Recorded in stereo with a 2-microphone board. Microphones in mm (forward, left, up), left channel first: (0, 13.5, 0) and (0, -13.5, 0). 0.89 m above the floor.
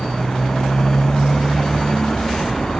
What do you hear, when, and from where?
0.0 s a motorcycle: 30° left (ahead or behind)